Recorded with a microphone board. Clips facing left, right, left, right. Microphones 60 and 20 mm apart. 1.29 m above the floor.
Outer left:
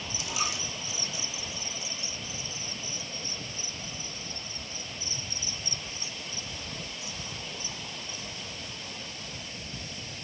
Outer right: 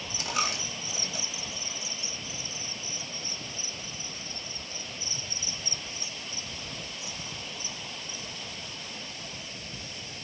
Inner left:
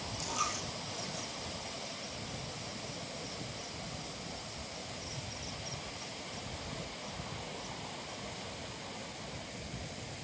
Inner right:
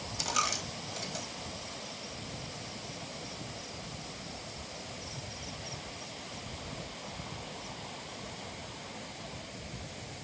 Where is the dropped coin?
45° right (ahead or behind), 2 m.